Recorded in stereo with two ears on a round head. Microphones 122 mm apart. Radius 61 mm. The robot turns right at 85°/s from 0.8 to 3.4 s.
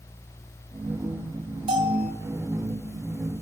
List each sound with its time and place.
1.7 s a bell: 45° right, 1.0 m; by 2.1 s 5° right, 1.0 m